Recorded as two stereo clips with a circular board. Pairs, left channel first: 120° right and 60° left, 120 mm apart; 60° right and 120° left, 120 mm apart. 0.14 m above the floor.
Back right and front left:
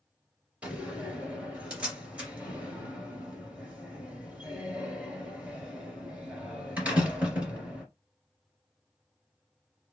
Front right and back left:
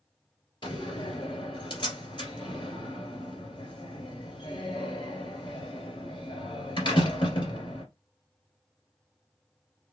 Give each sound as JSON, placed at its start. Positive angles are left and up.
{"t": 0.6, "sound": "a door slam", "azimuth_deg": -20, "distance_m": 2.0}